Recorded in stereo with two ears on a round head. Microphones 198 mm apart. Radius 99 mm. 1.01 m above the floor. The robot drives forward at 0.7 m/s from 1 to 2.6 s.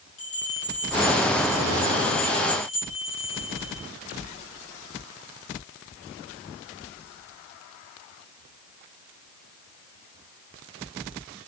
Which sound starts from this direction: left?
A bell, at 0.2 s.